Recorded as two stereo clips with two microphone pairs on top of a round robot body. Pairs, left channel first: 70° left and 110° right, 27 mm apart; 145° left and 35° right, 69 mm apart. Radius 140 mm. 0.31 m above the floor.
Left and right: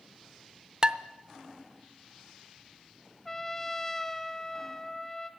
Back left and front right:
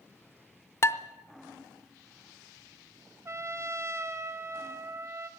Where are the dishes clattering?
160° right, 0.8 m.